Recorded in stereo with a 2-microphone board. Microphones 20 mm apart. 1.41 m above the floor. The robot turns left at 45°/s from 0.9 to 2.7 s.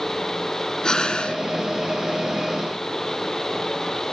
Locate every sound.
0.8 s breathing: 35° left (ahead or behind); by 1.4 s 50° left (ahead or behind)